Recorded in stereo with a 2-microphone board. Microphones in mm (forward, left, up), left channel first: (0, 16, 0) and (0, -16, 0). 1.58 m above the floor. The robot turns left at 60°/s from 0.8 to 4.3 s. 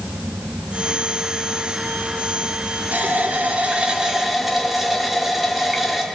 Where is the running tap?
90° right, 2.5 m; by 6.0 s 175° right, 2.5 m.